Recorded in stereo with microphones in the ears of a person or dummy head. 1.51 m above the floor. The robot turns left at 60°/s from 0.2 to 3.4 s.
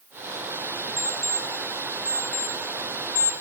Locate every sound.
1.0 s an alarm clock: 15° right (ahead or behind), 1.5 m; by 3.3 s 50° left (ahead or behind), 1.5 m